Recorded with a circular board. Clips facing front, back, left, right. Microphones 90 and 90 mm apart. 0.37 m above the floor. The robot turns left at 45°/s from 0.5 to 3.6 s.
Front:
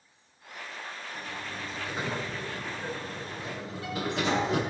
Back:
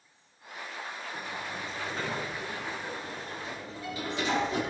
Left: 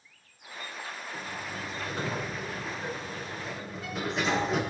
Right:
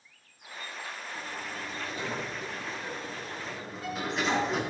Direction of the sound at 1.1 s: 110° left.